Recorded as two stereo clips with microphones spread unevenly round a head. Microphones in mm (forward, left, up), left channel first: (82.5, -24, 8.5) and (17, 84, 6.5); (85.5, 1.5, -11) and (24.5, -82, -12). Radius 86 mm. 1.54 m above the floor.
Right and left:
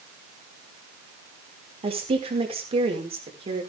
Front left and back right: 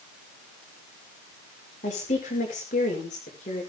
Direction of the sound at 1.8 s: 80° left.